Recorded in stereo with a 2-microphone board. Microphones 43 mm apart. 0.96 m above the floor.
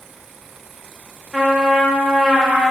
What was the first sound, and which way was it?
A trumpet, 20° right (ahead or behind).